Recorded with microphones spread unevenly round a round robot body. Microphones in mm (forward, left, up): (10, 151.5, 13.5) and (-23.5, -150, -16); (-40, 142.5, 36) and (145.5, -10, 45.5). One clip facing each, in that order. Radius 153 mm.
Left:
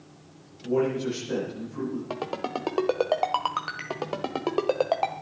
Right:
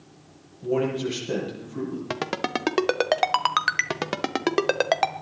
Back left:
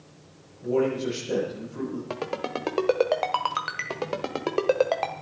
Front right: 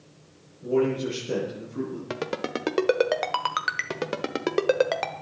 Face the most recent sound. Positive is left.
turn(degrees=-105)